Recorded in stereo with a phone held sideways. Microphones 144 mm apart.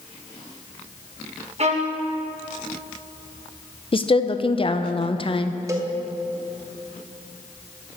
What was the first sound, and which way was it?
A violin, 50° right (ahead or behind).